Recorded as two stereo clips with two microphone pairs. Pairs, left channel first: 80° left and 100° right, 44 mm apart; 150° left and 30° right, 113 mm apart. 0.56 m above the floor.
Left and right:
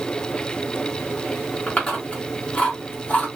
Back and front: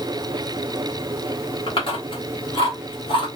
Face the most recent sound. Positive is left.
turn(degrees=130)